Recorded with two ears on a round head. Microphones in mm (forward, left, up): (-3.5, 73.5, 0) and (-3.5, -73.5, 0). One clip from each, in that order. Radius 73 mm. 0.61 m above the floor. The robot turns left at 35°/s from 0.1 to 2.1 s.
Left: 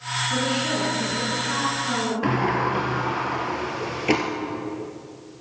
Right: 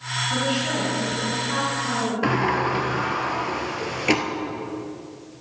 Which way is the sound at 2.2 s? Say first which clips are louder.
Right 2 dB; 20° right (ahead or behind).